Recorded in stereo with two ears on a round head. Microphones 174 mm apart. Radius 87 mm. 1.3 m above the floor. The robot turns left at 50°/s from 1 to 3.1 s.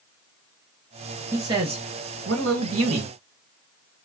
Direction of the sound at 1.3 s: 15° right.